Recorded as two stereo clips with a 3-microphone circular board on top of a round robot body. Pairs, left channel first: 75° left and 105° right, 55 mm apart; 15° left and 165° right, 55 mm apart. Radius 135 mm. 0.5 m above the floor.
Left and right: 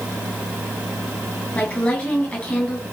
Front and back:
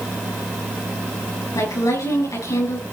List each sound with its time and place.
1.6 s a woman speaking: 10° left, 8.5 m